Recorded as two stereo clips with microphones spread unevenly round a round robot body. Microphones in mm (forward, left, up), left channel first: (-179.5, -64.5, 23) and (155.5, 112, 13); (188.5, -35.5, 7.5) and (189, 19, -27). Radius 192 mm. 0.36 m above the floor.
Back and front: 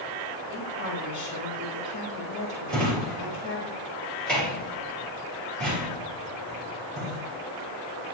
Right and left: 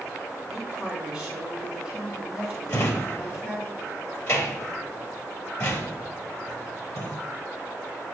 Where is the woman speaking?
130° right, 4 m.